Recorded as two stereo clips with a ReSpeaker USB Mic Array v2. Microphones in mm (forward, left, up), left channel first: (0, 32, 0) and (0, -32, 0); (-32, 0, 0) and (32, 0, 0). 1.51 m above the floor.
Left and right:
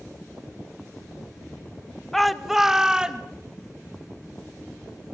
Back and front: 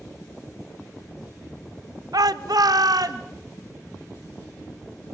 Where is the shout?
5° left, 1.3 m; by 3.2 s 15° right, 2.5 m.